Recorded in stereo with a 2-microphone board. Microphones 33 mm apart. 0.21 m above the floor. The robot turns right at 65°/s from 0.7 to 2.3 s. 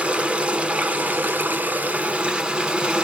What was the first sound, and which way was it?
Running water, 140° right.